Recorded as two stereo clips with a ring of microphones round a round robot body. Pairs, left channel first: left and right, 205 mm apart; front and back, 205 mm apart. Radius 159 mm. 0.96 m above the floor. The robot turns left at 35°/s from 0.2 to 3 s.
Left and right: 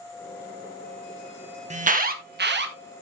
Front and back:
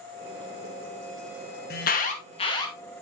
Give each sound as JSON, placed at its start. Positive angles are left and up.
{"t": 1.7, "sound": "an alarm", "azimuth_deg": -40, "distance_m": 1.8}